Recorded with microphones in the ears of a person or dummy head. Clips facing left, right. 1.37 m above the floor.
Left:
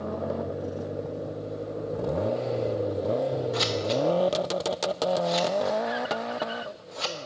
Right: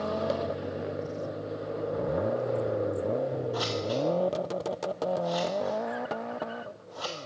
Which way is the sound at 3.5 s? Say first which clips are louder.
Left 3 dB; 25° left (ahead or behind).